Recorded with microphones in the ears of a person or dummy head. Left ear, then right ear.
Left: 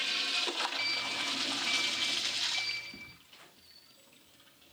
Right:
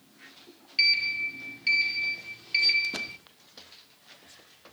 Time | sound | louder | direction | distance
0.8 | a sliding door | right 9 dB | 30° right (ahead or behind) | 1.7 m